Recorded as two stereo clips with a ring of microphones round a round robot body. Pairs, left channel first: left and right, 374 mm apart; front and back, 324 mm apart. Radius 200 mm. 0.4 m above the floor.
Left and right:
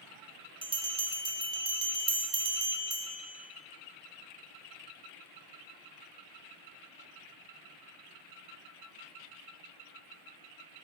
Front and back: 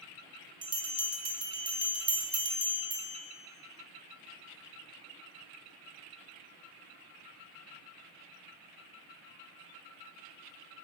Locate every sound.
0.6 s a bell: 140° right, 0.6 m